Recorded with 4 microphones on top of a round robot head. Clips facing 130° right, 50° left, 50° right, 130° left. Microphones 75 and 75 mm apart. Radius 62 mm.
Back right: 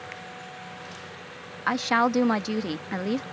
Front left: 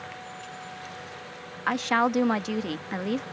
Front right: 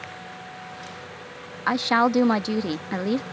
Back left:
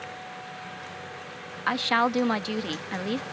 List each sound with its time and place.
1.7 s a woman speaking: 50° right